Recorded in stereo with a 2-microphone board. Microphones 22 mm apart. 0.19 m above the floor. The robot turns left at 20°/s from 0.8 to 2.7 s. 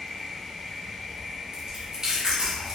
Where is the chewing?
30° right (ahead or behind), 1.3 m; by 2.8 s 40° right (ahead or behind), 1.3 m.